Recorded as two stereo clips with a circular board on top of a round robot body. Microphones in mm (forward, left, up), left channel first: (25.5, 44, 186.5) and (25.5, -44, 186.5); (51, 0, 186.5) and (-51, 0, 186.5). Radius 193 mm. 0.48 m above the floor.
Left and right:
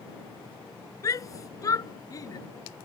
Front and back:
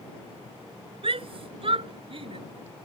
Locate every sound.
1.0 s a shout: 145° left